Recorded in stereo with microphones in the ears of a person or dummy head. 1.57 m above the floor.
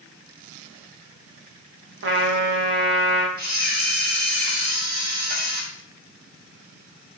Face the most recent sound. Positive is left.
turn(degrees=-50)  # may be behind; listen again after turning